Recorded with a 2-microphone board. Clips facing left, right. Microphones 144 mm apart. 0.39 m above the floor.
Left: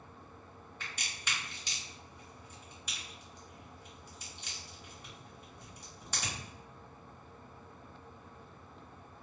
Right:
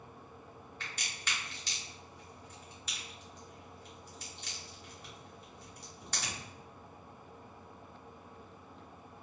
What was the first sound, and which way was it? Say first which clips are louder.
A crack: left 1 dB; 10° left (ahead or behind).